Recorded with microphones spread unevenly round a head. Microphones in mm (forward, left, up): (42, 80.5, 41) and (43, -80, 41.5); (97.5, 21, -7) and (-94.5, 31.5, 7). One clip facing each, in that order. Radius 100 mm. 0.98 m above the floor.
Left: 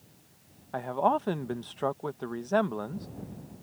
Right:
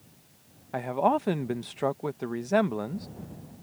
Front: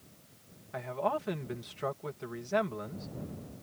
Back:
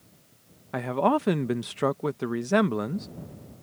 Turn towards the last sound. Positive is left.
turn(degrees=-170)